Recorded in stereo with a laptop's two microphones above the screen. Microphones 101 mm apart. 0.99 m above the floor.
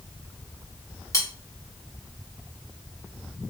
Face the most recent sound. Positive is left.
turn(degrees=35)  # may be behind; listen again after turning